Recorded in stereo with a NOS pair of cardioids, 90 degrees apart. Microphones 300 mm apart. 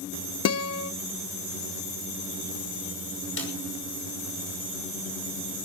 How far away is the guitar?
About 0.9 m.